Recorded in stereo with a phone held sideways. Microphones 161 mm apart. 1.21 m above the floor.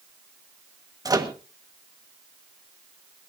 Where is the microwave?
25° right (ahead or behind), 1.2 m.